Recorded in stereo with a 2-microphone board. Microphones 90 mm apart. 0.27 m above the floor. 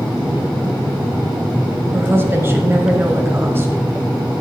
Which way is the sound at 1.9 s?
25° right (ahead or behind).